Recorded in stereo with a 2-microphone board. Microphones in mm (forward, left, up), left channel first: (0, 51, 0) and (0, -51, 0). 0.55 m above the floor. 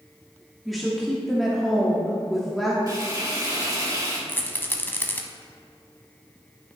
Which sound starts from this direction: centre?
A woman speaking, at 0.7 s.